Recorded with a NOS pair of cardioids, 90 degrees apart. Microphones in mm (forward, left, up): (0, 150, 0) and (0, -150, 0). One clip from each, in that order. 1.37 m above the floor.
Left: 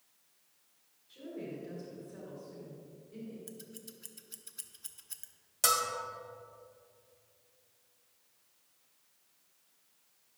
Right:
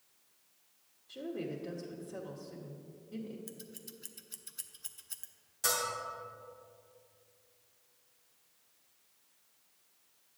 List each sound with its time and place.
1.1 s a woman speaking: 65° right, 1.3 m
3.5 s scissors: straight ahead, 0.5 m
5.6 s a bell: 70° left, 1.9 m